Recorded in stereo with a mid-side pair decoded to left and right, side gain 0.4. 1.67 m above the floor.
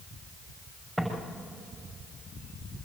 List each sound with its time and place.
1.0 s footsteps: 20° right, 7.5 m